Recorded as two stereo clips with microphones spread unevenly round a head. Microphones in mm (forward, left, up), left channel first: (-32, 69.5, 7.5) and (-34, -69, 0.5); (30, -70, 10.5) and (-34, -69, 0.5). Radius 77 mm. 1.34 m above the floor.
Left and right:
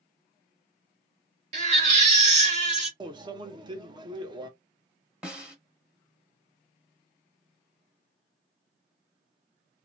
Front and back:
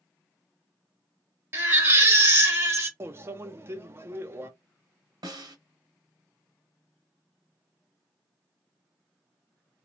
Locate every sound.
1.5 s a baby crying: 125° right, 1.5 m
3.0 s a microwave: 135° right, 0.6 m
5.2 s a snare drum: 175° right, 1.6 m